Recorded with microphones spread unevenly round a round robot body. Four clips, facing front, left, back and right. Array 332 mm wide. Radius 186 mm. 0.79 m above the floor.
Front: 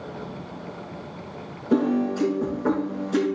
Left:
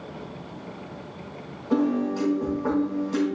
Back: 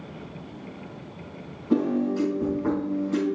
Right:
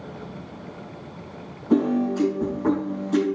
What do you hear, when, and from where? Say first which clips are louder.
1.7 s a piano: right 2 dB, front 2 dB; 120° right, 3.5 m